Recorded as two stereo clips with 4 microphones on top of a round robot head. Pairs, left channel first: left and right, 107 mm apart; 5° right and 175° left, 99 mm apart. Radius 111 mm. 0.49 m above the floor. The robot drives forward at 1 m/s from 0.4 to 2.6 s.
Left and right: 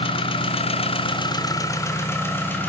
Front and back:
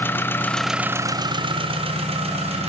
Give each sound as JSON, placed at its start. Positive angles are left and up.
{"t": 0.0, "sound": "an engine running", "azimuth_deg": 65, "distance_m": 0.8}